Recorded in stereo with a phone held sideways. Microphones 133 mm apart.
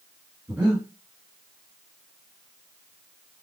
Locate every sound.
0.5 s breathing: 10° right (ahead or behind), 2.5 m